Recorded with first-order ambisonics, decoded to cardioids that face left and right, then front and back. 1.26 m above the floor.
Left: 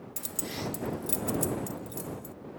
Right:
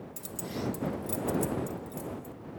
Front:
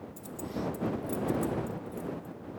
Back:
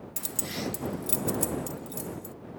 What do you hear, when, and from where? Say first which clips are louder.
0.2 s keys jangling: left 1 dB, back 3 dB; 155° left